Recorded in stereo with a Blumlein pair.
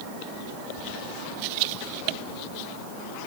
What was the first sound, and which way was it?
Only background noise.